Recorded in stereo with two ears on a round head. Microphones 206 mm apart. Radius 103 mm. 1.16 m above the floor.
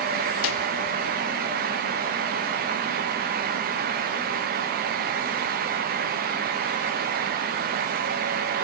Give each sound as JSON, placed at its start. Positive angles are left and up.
{"t": 0.4, "sound": "a snare drum", "side_deg": 60, "distance_m": 0.7}